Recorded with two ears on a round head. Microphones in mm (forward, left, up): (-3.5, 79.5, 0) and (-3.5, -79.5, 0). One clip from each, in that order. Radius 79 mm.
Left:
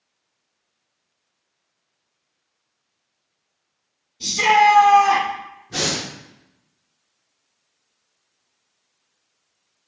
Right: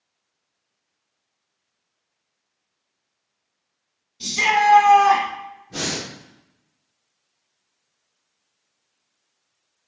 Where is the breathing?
40° left (ahead or behind), 0.8 m.